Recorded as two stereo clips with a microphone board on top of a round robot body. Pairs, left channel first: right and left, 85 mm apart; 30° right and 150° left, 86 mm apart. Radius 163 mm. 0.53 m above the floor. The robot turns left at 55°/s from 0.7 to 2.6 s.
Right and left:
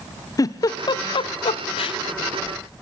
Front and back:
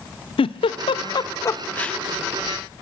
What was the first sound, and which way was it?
A giggle, 45° right.